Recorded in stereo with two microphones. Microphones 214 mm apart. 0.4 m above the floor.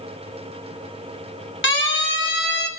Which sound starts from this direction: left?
A siren, at 1.6 s.